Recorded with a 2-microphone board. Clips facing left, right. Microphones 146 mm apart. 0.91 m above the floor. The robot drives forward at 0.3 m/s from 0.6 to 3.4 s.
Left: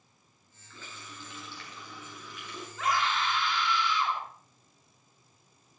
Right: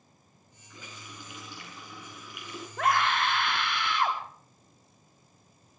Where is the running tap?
15° right (ahead or behind), 7 m; by 2.7 s 10° right (ahead or behind), 7.5 m.